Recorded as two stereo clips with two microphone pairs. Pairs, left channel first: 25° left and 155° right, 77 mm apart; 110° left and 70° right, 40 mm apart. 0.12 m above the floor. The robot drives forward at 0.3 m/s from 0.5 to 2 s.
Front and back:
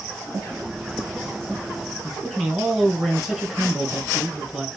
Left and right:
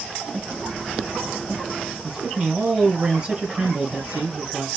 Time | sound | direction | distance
2.0 | a man speaking | 80° right | 1.3 m